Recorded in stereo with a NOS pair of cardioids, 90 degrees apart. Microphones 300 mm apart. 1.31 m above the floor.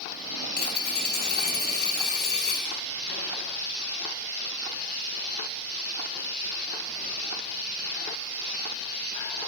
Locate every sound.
0.6 s a dropped coin: 30° left, 3 m